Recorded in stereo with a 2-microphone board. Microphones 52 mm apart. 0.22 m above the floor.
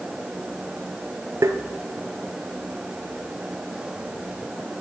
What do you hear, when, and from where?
1.4 s tapping: 70° right (ahead or behind), 0.8 m